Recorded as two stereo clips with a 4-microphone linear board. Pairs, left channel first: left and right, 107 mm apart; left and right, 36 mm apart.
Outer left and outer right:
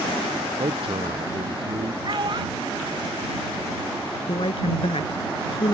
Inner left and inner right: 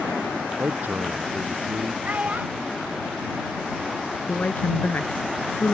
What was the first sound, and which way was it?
A man speaking, 60° right (ahead or behind).